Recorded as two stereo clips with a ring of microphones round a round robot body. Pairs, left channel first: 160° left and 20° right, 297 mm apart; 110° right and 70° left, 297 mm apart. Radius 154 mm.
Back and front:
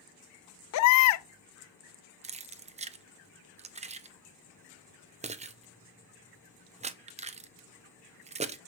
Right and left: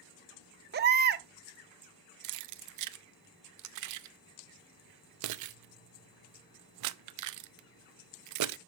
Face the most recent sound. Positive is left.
turn(degrees=45)